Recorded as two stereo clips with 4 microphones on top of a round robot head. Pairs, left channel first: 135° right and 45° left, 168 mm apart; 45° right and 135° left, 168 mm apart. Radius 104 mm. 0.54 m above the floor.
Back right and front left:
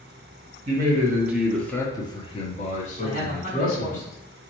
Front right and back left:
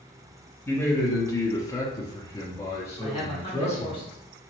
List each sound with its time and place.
0.7 s a man speaking: 30° left, 0.9 m; by 4.0 s 115° right, 1.8 m
3.0 s a man speaking: 100° right, 1.9 m